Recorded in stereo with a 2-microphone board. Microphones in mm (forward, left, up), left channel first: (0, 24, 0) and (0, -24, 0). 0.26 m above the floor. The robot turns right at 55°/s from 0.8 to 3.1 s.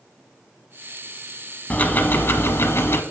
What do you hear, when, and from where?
1.7 s ticking: 35° left, 0.7 m; by 3.0 s 105° left, 0.7 m